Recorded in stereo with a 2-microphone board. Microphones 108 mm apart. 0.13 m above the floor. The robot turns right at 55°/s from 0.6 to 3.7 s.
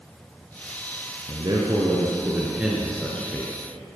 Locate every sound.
1.3 s a man speaking: 85° right, 2 m; by 3.5 s 35° left, 2 m